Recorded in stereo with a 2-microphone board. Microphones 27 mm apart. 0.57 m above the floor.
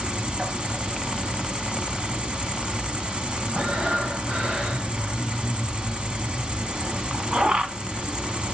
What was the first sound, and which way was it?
An insect, 40° right (ahead or behind).